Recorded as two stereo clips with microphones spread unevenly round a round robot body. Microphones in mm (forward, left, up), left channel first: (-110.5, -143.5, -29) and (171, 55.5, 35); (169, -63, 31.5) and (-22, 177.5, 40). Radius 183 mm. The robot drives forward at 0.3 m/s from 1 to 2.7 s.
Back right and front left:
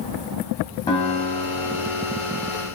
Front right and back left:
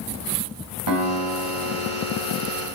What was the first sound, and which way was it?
A guitar, 140° left.